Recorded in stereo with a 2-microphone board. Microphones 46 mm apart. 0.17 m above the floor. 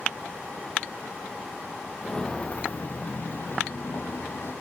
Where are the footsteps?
10° left (ahead or behind), 1.0 m; by 4.5 s 60° left (ahead or behind), 2.5 m.